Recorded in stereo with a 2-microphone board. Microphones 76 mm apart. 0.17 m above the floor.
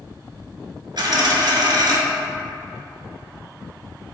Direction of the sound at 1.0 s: 65° right (ahead or behind).